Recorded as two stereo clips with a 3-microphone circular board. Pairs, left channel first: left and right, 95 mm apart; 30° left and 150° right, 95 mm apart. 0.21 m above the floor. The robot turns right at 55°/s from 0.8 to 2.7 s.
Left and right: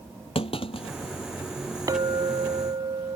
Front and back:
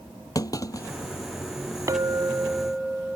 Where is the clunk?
80° left; by 1.0 s 90° left.